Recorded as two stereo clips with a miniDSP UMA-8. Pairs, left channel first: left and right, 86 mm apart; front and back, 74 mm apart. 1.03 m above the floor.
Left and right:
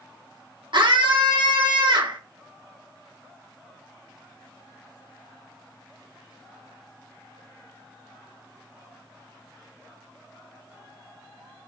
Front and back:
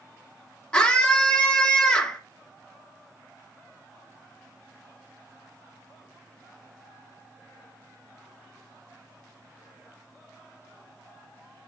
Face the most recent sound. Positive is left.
turn(degrees=-75)